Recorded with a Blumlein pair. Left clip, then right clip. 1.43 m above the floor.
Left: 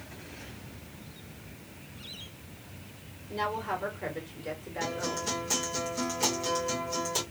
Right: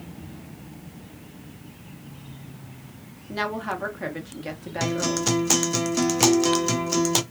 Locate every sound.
3.3 s a woman speaking: 45° right, 1.2 m
4.8 s a guitar: 55° right, 0.5 m